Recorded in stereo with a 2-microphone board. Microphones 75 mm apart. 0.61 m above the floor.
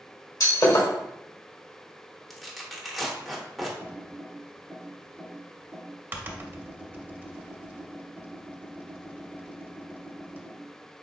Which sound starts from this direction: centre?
Tearing paper, at 2.3 s.